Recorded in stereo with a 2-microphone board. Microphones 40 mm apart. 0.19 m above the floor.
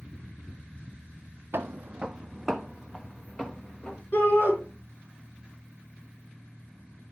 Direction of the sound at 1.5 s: 60° right (ahead or behind).